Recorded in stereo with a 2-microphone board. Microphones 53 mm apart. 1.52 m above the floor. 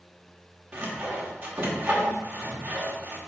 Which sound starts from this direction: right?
Sawing, at 0.7 s.